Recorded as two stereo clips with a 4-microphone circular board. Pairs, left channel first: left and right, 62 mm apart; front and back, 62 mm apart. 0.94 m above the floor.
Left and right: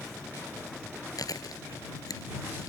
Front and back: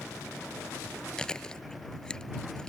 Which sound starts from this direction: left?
Chewing, at 1.2 s.